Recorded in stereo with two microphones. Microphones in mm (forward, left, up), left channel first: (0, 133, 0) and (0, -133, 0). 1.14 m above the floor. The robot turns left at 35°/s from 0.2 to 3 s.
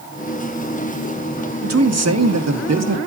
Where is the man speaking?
60° right, 1.3 m; by 3.0 s 105° right, 1.3 m.